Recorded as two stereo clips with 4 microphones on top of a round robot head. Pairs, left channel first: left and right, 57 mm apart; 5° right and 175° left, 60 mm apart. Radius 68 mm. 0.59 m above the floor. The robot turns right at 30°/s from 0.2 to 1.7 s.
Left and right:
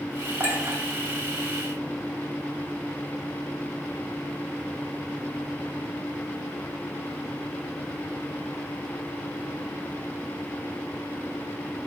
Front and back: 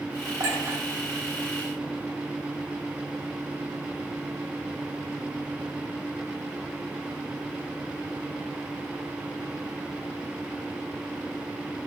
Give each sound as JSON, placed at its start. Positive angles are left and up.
{"t": 0.4, "sound": "a clink", "azimuth_deg": -150, "distance_m": 2.5}